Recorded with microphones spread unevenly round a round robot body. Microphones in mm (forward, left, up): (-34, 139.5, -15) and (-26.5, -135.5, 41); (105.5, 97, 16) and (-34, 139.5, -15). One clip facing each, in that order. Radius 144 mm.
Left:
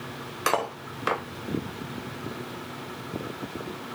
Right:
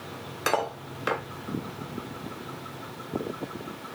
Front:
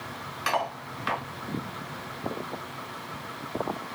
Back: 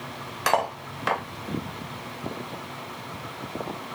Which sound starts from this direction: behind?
Cutlery clinking, at 0.5 s.